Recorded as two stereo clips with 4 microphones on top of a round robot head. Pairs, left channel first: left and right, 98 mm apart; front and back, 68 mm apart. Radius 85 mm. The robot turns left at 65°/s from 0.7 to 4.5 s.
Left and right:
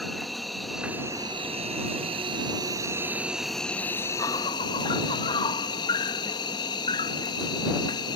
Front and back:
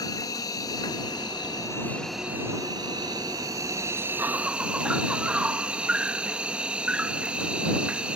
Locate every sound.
0.0 s an insect: straight ahead; by 8.2 s 115° left